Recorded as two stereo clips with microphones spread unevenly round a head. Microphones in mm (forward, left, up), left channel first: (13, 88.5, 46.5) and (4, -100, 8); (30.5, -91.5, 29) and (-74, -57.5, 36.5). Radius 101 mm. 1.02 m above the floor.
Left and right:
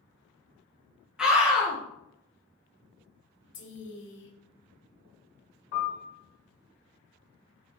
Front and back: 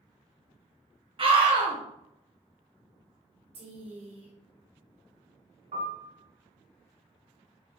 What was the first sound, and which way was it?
A scream, 170° right.